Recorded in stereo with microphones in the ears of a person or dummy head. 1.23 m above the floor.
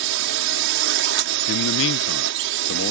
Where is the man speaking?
65° left (ahead or behind).